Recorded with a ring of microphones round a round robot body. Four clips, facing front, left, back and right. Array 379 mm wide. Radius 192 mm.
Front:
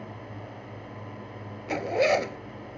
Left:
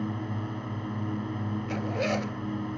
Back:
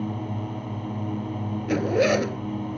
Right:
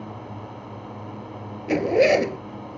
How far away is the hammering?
No hammering in this recording.